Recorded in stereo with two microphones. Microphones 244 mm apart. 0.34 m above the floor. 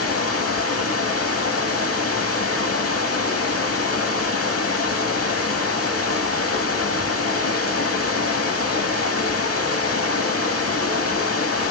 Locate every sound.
0.0 s running water: 70° left (ahead or behind), 0.9 m